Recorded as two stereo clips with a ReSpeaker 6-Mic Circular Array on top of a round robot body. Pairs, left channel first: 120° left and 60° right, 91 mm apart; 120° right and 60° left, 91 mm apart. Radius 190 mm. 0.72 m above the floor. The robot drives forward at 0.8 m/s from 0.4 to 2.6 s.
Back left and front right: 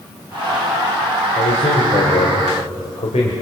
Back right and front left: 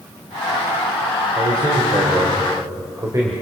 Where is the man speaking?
105° left, 3.5 m; by 3.3 s 120° left, 4 m.